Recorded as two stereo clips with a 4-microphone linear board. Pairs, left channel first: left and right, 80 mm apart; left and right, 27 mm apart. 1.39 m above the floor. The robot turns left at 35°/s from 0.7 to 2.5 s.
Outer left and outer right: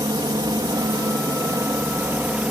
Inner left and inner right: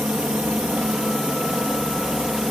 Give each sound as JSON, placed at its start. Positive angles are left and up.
{"t": 0.0, "sound": "a helicopter", "azimuth_deg": -100}